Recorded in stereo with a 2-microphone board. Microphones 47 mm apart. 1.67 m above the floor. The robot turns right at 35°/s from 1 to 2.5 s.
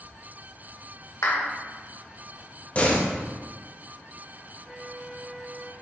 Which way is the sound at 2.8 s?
30° left (ahead or behind).